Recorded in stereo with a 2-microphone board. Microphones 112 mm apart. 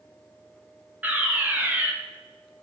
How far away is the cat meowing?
I don't hear a cat meowing.